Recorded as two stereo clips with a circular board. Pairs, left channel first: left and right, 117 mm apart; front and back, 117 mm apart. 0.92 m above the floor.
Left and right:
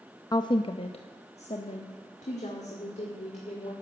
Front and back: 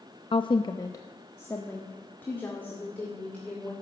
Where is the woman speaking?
35° left, 0.5 m; by 3.7 s 80° left, 3 m.